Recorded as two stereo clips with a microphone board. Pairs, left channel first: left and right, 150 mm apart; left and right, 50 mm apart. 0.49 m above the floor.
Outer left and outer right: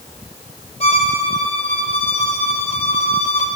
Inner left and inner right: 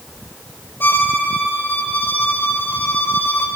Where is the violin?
45° left (ahead or behind), 2 m.